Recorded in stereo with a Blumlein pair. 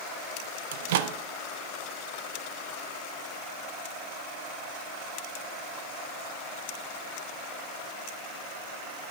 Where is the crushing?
I don't hear crushing.